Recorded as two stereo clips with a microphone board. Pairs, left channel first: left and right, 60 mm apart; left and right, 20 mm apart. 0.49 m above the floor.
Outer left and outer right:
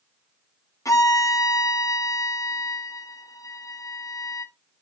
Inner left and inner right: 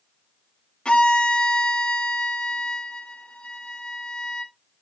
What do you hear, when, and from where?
0.8 s a violin: 70° left (ahead or behind), 1.5 m